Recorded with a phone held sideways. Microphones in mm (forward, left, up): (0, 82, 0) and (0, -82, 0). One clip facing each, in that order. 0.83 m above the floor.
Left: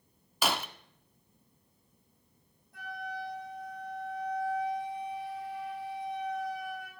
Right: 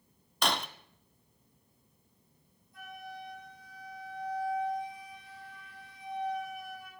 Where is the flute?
75° left (ahead or behind), 3 m.